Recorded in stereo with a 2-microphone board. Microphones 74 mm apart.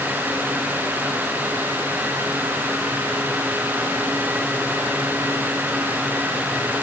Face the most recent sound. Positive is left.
No sound to turn to.